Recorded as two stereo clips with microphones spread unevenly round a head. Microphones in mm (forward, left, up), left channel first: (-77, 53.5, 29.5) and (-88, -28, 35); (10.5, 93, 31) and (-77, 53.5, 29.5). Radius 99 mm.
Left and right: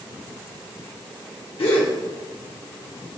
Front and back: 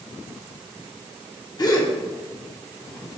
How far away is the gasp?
About 1.1 m.